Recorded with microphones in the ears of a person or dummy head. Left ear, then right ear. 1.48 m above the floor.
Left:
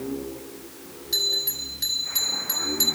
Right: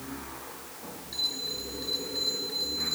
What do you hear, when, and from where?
1.1 s a bell: 45° left (ahead or behind), 5 m